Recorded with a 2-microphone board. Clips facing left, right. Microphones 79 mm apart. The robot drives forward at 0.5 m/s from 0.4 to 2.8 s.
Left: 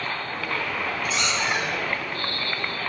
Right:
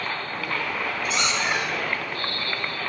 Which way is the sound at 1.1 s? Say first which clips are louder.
Right 1 dB; 80° right.